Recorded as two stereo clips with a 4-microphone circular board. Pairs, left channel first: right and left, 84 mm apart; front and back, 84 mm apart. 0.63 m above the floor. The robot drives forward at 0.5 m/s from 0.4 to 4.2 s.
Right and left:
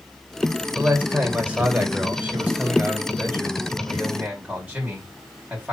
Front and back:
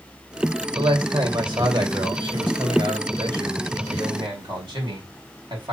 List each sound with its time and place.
0.8 s a man speaking: 160° left, 2.5 m; by 5.7 s 165° left, 4.5 m